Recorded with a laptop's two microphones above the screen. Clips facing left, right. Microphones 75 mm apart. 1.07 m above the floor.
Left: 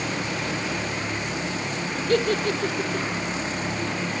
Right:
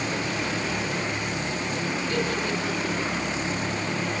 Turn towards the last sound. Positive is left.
turn(degrees=60)  # may be behind; listen again after turning